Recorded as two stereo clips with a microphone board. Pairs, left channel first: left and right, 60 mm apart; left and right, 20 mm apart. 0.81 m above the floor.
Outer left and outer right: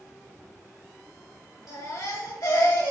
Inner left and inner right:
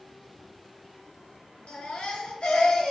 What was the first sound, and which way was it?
A baby crying, 80° left.